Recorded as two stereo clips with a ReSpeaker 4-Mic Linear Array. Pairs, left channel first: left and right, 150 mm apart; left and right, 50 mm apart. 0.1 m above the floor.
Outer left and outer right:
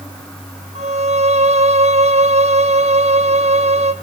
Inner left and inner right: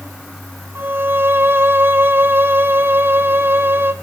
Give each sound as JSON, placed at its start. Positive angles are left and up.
{"t": 0.8, "sound": "a violin", "side_deg": -45, "distance_m": 1.1}